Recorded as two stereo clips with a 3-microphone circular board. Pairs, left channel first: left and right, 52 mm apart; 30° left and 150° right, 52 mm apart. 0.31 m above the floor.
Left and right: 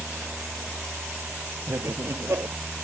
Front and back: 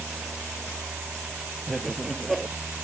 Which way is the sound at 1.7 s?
60° right.